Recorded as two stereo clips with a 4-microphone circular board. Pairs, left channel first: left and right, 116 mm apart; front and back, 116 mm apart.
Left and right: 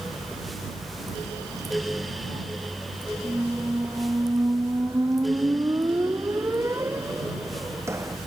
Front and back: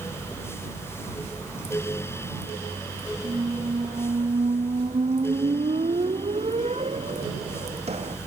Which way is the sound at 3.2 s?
155° right.